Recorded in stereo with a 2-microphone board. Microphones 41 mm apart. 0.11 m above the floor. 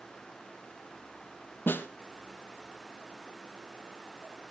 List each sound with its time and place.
1.7 s a snare drum: 60° left (ahead or behind), 1.3 m